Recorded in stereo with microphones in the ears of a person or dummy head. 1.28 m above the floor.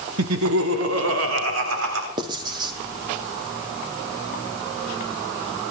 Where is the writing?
25° right (ahead or behind), 1.9 m.